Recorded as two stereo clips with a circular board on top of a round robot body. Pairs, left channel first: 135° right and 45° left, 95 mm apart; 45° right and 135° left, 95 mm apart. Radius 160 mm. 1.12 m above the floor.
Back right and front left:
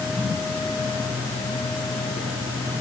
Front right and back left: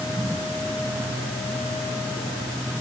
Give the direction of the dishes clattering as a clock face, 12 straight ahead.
No dishes clattering in this recording.